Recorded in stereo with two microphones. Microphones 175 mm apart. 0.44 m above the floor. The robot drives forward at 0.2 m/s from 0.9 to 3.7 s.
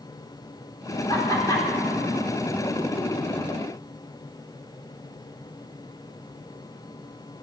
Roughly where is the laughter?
Left.